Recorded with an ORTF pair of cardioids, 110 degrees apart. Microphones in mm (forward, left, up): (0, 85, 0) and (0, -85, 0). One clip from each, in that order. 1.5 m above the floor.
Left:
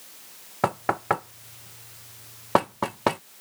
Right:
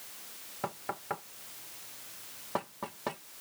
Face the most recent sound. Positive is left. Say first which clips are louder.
# left 13 dB
turn(degrees=65)